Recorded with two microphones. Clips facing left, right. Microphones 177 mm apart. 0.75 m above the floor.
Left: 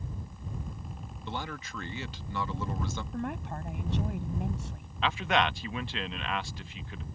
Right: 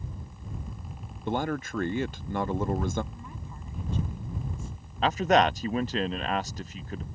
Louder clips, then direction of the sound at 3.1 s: Left 9 dB; 80° left.